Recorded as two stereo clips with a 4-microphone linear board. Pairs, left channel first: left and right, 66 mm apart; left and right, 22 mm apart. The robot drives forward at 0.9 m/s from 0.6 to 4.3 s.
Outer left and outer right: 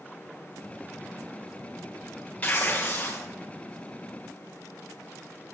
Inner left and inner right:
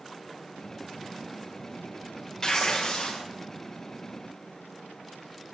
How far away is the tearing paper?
About 3.5 m.